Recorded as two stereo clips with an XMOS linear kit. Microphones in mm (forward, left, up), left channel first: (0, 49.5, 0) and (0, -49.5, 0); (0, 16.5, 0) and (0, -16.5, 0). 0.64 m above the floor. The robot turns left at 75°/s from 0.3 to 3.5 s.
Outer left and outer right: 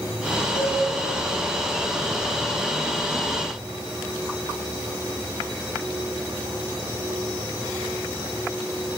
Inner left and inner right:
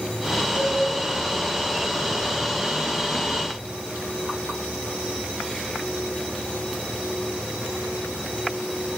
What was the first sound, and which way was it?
A cowbell, 80° left.